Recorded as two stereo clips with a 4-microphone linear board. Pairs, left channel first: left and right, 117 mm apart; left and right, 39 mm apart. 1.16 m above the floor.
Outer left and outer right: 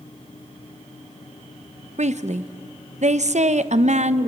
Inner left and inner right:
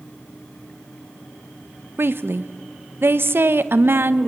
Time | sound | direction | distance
2.0 | a woman speaking | 80° right | 0.8 m